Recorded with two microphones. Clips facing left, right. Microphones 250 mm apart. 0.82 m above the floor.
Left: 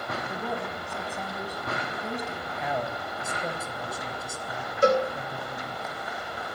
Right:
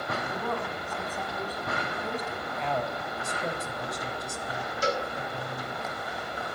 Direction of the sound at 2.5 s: 5° left (ahead or behind).